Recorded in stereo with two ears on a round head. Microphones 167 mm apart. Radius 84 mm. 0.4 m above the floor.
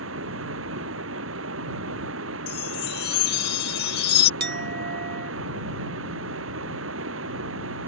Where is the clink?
55° right (ahead or behind).